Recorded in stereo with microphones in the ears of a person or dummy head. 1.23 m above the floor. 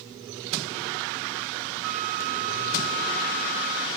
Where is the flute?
70° right (ahead or behind), 1.7 m.